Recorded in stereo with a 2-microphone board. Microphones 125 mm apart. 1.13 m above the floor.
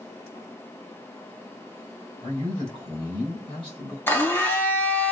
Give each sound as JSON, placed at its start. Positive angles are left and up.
{"t": 2.2, "sound": "a man speaking", "side_deg": 45, "distance_m": 3.0}
{"t": 4.1, "sound": "a blender", "side_deg": 15, "distance_m": 0.9}